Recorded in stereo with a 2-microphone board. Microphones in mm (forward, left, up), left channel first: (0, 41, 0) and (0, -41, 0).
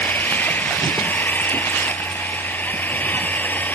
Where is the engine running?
20° left (ahead or behind).